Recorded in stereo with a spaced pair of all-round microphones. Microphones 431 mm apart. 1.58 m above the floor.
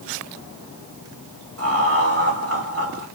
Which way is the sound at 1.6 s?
35° right (ahead or behind).